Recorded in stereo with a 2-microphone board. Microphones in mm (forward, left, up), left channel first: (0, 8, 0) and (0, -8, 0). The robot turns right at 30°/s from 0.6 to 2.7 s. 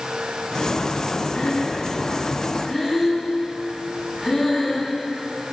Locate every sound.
1.3 s breathing: 50° left (ahead or behind), 8.5 m; by 4.9 s 10° left (ahead or behind), 8.5 m